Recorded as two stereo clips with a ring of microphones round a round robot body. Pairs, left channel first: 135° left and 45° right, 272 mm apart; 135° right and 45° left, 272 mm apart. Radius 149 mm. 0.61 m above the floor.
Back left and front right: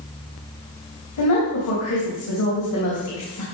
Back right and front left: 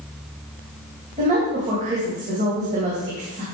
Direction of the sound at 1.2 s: 110° left.